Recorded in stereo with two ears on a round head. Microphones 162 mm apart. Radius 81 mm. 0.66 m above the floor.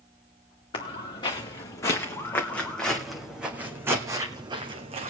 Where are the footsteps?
30° left (ahead or behind), 3 m; by 5.1 s 35° right (ahead or behind), 2 m.